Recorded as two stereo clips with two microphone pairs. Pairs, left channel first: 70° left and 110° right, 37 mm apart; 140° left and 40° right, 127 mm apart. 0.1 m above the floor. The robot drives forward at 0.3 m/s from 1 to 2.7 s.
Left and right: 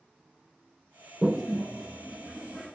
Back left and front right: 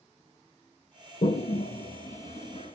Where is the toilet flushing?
170° left, 1.5 m.